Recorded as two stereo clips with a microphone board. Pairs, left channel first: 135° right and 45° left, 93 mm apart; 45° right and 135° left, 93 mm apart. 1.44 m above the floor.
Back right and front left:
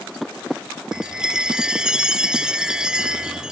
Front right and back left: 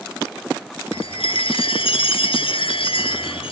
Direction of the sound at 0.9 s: 35° right.